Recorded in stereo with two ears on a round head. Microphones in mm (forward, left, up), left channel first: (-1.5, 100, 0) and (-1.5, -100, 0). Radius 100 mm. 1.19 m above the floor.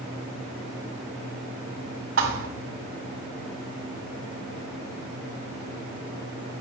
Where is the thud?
65° right (ahead or behind), 2 m.